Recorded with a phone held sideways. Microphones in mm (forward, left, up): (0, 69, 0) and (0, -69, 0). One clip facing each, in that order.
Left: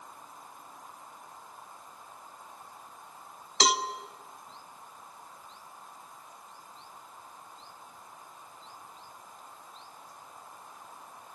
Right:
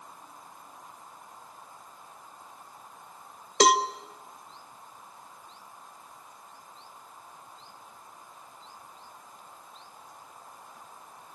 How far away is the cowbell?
About 0.9 m.